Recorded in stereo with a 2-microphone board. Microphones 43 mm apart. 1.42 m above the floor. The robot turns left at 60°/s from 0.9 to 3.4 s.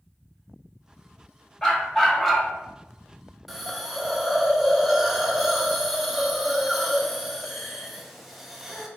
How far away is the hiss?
About 0.5 m.